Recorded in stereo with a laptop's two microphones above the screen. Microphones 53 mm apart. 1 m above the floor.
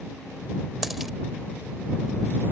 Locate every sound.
0.8 s a dropped coin: 5° right (ahead or behind)